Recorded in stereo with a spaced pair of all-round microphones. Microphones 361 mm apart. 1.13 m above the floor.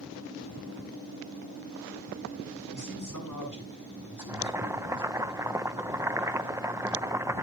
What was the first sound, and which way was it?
A man speaking, 55° left (ahead or behind).